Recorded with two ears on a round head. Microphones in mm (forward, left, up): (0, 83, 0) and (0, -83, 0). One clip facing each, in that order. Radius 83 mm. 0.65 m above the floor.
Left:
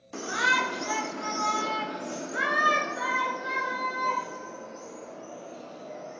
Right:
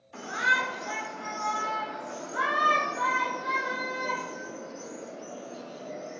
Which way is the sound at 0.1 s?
55° left (ahead or behind).